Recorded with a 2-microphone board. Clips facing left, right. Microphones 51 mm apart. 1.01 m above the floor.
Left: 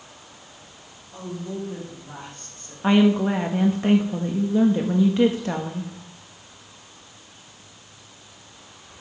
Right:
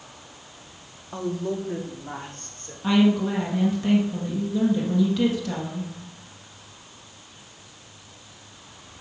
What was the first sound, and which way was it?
A woman speaking, 75° right (ahead or behind).